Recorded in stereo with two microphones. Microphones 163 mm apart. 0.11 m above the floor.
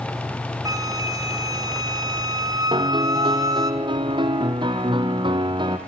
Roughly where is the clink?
I don't hear a clink.